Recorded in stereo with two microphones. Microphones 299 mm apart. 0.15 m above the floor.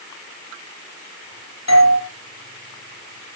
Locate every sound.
1.7 s a doorbell: 60° left (ahead or behind), 5.5 m